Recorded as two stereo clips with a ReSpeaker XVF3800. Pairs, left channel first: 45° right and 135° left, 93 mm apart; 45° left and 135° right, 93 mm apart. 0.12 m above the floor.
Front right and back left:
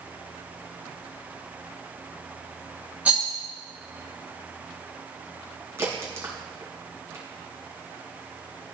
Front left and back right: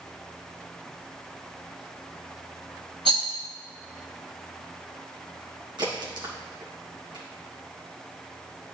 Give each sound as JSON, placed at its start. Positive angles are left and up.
{"t": 3.0, "sound": "a rattle", "azimuth_deg": -150, "distance_m": 2.5}
{"t": 5.8, "sound": "a crack", "azimuth_deg": -165, "distance_m": 3.0}